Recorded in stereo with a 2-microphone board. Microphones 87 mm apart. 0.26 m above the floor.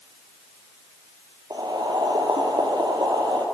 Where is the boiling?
55° right (ahead or behind), 1.5 m.